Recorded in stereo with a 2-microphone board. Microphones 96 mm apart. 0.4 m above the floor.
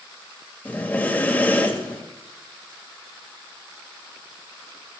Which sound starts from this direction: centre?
Breathing, at 0.7 s.